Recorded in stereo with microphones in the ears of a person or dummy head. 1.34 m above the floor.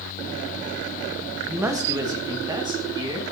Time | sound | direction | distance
1.5 | a man speaking | 10° right (ahead or behind) | 1.6 m